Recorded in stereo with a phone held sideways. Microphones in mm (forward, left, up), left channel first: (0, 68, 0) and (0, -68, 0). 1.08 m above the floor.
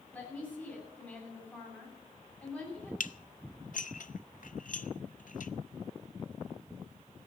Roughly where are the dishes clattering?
Left.